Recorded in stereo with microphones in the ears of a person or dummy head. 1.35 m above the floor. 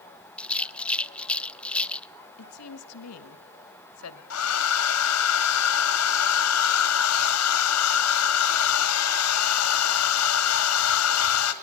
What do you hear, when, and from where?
0.4 s a rattle: 5° left (ahead or behind), 0.7 m
2.4 s a woman speaking: 85° left, 2.5 m
4.3 s a hair dryer: 90° left, 2.5 m